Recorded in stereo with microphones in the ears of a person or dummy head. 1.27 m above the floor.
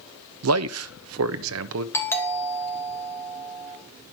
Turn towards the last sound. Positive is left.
turn(degrees=15)  # may be behind; listen again after turning